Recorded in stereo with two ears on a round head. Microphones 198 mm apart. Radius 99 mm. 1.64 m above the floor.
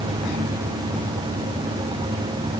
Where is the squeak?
I don't hear a squeak.